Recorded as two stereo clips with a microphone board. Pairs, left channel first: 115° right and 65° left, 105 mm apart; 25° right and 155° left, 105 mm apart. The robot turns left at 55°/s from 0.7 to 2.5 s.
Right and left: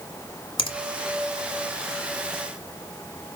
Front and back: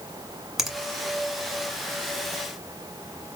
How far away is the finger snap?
About 1.3 m.